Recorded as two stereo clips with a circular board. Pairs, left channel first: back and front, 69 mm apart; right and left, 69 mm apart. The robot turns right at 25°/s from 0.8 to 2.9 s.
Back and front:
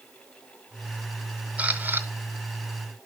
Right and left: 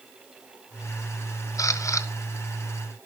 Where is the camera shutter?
70° right, 0.7 m; by 2.1 s 55° right, 0.7 m.